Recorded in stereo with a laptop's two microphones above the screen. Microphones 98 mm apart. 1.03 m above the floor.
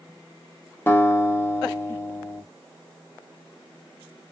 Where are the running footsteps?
No running footsteps in this recording.